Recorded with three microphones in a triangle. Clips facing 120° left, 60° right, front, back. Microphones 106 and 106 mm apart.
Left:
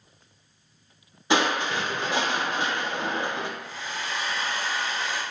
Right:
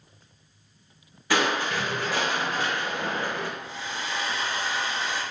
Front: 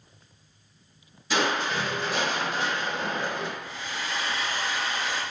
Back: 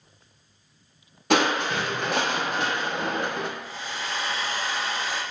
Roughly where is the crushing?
Behind.